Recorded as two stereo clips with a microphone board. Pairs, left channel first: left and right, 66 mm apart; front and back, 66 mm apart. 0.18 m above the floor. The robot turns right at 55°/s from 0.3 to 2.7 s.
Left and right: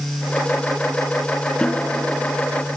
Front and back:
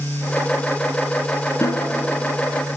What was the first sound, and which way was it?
A snare drum, 20° left.